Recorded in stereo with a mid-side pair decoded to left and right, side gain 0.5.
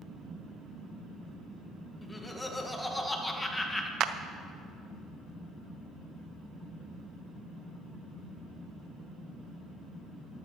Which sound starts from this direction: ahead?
Laughter, at 2.0 s.